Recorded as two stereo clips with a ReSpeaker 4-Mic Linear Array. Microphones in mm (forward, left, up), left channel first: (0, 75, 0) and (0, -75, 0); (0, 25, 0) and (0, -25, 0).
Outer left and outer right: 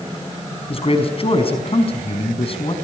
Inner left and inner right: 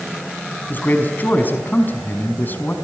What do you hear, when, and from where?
0.7 s a man speaking: 40° left (ahead or behind), 4.5 m